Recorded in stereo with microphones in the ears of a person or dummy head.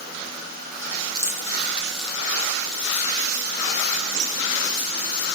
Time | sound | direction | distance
1.1 | keys jangling | 20° right (ahead or behind) | 0.8 m